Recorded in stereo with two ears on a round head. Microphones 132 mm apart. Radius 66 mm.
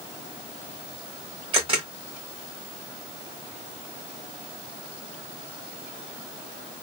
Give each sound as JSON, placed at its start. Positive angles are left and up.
{"t": 1.5, "sound": "a camera shutter", "side_deg": -35, "distance_m": 1.6}